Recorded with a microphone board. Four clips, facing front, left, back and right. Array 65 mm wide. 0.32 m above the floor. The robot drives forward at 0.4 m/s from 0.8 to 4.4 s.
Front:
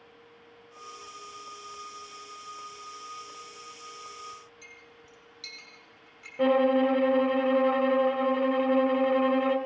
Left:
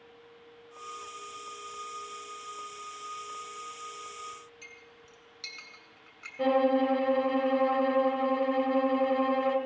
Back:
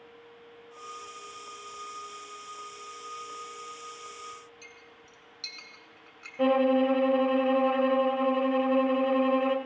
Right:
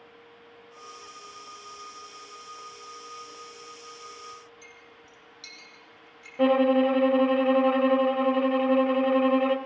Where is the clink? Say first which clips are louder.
Right 1 dB, even; 140° left, 2.5 m.